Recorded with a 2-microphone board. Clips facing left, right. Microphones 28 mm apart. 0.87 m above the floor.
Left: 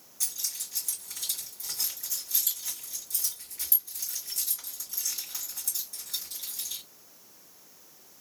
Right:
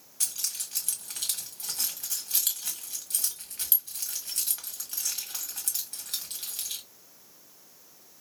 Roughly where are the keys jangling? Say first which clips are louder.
Right 2 dB; right.